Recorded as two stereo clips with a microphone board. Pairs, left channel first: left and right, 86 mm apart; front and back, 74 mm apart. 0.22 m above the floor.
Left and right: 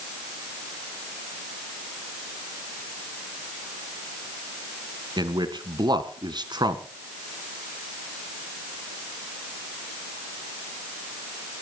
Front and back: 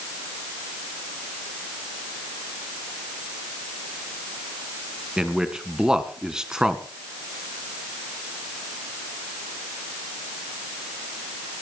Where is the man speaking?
100° right, 1.8 m.